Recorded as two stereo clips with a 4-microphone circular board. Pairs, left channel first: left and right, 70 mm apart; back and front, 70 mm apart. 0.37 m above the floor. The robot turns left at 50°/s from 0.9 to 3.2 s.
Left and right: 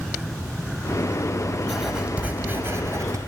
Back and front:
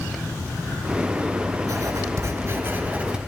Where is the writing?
Straight ahead, 2.5 m; by 3.3 s 75° right, 2.5 m.